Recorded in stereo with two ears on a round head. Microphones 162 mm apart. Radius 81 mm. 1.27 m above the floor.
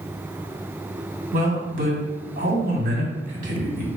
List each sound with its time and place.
1.3 s a man speaking: 45° right (ahead or behind), 2.5 m